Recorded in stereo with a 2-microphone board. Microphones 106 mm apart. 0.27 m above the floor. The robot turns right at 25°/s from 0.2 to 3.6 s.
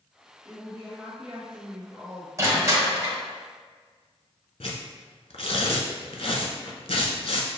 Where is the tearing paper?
70° left (ahead or behind), 0.7 m.